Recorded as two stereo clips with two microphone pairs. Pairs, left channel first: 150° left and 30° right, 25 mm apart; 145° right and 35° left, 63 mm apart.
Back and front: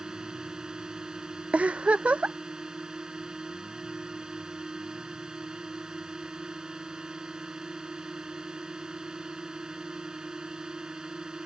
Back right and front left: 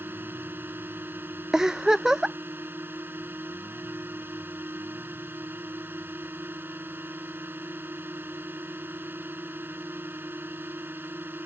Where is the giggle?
50° right.